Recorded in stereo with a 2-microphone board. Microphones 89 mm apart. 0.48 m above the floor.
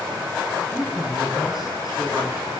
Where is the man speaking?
5° left (ahead or behind), 7.5 m; by 2.5 s 15° right (ahead or behind), 8.5 m.